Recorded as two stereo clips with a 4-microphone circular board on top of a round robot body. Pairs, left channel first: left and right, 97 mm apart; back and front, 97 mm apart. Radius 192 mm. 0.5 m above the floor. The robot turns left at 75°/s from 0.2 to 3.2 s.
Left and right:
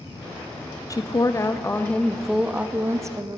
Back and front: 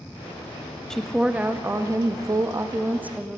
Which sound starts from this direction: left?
A woman speaking, at 0.9 s.